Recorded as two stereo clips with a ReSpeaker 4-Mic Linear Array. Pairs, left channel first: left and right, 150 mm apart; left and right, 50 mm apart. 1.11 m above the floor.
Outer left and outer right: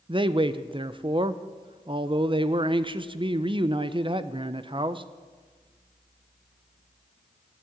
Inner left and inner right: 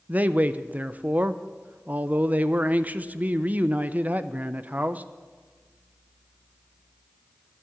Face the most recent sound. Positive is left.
turn(degrees=-35)  # may be behind; listen again after turning